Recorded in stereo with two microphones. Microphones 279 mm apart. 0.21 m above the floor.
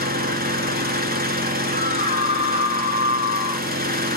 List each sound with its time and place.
0.0 s an engine running: 35° right (ahead or behind), 1.0 m
1.7 s a scream: 25° right (ahead or behind), 1.1 m